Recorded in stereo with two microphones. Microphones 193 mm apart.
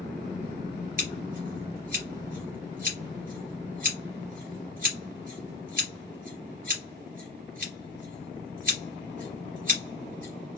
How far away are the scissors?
About 3 m.